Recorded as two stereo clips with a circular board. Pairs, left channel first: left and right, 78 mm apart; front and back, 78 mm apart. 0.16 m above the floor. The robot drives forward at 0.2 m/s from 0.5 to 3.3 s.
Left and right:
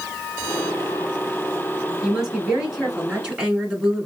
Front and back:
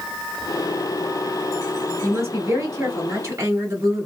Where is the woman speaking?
165° right, 2.0 m; by 4.1 s 170° right, 2 m.